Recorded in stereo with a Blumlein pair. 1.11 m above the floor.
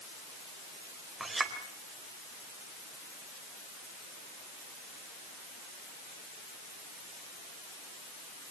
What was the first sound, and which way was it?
A clink, 10° right.